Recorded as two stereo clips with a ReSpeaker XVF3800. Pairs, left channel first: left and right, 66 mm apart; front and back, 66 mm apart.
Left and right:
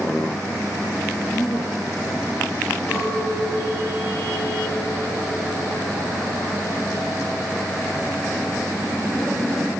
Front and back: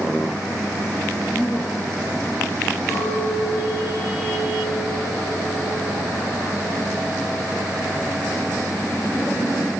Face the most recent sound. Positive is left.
turn(degrees=45)